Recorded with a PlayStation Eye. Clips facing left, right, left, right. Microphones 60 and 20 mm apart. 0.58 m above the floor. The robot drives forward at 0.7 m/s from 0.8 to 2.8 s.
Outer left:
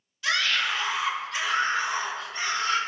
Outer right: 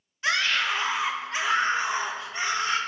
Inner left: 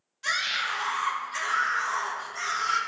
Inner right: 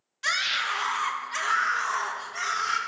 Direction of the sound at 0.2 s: 30° right (ahead or behind).